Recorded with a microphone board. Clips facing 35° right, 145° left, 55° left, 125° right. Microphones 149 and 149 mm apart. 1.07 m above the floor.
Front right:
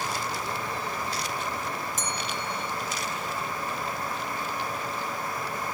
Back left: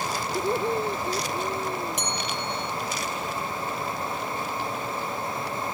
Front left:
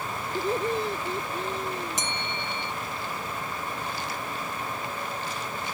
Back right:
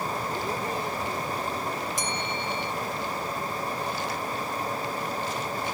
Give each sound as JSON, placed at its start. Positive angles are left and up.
{"t": 0.3, "sound": "laughter", "azimuth_deg": 115}
{"t": 2.0, "sound": "a bell", "azimuth_deg": 125}